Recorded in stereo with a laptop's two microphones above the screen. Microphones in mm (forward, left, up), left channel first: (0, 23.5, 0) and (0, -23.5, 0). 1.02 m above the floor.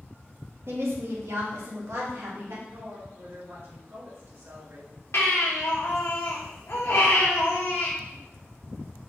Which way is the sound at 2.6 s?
55° right (ahead or behind).